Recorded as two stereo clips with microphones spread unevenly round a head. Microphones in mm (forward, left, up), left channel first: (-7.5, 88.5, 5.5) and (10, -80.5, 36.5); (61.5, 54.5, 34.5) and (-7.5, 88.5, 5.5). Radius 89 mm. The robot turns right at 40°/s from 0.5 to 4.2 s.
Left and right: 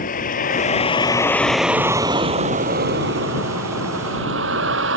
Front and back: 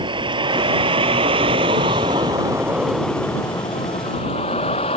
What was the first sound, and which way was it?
A vehicle, 140° left.